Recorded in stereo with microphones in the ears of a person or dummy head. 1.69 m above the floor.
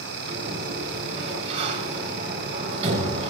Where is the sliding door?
35° right (ahead or behind), 6.5 m.